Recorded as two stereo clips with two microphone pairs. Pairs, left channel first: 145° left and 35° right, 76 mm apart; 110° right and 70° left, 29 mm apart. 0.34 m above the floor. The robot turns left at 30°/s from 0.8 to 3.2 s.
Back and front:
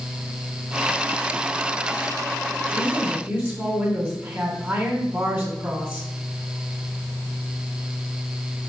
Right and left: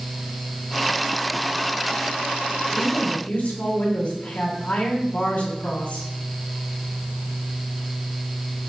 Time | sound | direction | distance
2.7 | a woman speaking | 70° right | 2.5 m